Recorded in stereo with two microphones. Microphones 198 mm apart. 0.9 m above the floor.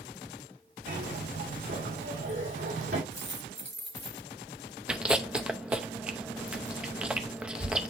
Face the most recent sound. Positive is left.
turn(degrees=-5)  # may be behind; listen again after turning